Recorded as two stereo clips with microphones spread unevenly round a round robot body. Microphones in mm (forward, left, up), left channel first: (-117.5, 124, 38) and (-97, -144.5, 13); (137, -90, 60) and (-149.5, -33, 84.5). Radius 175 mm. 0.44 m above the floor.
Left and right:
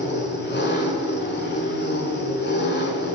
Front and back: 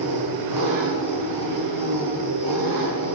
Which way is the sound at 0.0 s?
145° left.